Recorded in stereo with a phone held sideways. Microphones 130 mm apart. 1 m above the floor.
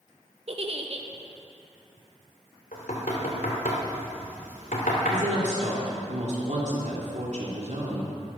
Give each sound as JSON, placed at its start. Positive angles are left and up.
{"t": 0.5, "sound": "a giggle", "side_deg": -50, "distance_m": 0.9}
{"t": 2.7, "sound": "knocking", "side_deg": 85, "distance_m": 2.0}
{"t": 5.1, "sound": "a woman speaking", "side_deg": -65, "distance_m": 3.0}